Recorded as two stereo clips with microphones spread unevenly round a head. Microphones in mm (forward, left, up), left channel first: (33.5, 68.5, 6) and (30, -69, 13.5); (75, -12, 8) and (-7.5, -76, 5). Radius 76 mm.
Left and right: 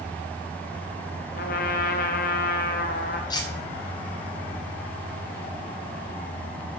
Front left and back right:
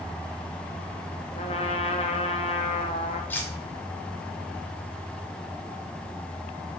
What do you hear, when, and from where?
1.4 s a trumpet: 85° left, 0.9 m
3.3 s cutlery clinking: 80° left, 0.8 m